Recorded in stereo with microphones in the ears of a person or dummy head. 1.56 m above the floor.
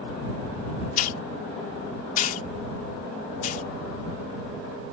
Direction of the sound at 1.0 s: 50° left (ahead or behind).